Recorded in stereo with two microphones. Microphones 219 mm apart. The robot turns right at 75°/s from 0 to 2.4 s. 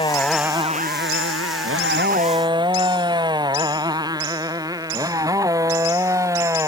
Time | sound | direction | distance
0.0 | a motorcycle | 25° left (ahead or behind) | ?